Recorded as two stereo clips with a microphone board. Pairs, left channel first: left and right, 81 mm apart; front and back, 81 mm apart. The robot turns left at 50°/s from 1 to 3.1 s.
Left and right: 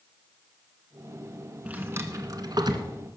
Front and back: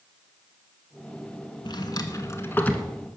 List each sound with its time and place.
1.6 s a drawer: 20° right, 1.5 m; by 2.9 s 80° right, 1.5 m